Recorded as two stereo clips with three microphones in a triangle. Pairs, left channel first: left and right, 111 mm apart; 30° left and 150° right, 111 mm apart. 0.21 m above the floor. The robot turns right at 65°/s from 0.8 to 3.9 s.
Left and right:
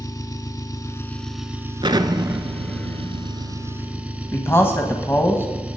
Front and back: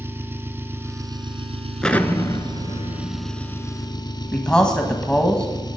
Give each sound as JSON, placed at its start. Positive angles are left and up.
{"t": 0.0, "sound": "an engine running", "azimuth_deg": 145, "distance_m": 1.1}
{"t": 1.8, "sound": "an explosion", "azimuth_deg": -55, "distance_m": 0.8}
{"t": 4.3, "sound": "a man speaking", "azimuth_deg": 95, "distance_m": 1.3}